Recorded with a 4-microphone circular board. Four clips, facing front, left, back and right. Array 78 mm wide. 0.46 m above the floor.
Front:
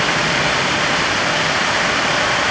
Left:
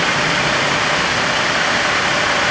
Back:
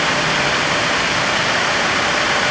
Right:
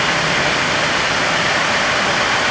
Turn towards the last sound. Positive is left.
No sound to turn to.